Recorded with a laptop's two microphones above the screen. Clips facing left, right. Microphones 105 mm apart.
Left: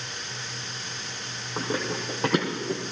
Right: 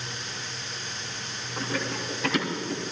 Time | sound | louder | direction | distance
1.6 | running footsteps | left 2 dB | 40° left (ahead or behind) | 2.5 m